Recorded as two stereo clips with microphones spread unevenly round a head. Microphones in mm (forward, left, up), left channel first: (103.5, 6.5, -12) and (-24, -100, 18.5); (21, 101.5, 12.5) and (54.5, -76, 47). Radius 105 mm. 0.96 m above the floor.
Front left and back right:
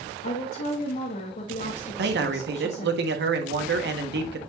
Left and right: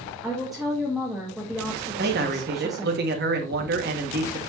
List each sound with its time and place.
0.2 s a woman speaking: 15° left, 1.7 m
2.0 s a man speaking: 125° right, 1.5 m